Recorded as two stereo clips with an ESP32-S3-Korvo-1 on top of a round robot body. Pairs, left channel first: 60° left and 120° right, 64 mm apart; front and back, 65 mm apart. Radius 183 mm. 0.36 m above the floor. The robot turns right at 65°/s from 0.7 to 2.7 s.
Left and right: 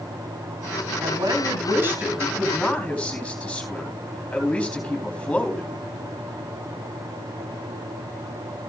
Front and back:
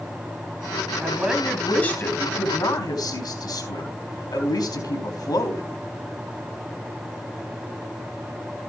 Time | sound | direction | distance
1.0 | a woman speaking | 130° right | 4.5 m